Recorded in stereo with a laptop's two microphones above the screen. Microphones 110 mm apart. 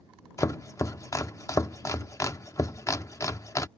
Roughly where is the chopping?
Left.